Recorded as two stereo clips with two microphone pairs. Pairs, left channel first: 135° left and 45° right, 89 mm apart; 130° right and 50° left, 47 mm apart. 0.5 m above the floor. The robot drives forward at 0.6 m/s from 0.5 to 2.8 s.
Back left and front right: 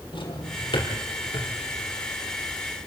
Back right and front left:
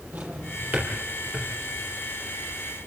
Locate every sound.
0.1 s a drawer: 105° left, 4.5 m; by 1.5 s 110° left, 5 m